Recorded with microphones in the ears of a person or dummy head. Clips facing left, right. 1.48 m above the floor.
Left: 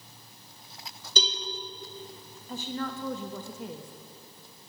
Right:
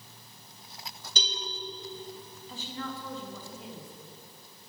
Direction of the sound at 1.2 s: 60° left (ahead or behind).